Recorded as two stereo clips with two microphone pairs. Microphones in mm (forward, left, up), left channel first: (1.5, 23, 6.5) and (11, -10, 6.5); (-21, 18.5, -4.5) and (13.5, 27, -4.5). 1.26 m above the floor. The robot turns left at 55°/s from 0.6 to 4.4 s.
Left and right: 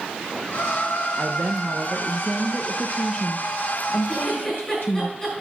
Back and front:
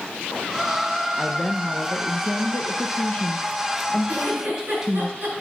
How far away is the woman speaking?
About 0.6 m.